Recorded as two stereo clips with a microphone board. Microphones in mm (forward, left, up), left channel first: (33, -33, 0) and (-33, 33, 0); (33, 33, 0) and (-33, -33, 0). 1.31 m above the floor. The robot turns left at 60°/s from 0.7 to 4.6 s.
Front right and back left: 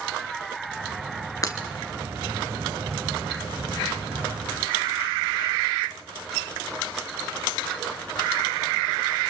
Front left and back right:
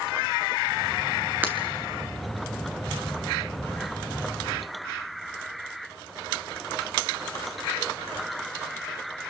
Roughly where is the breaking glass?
Right.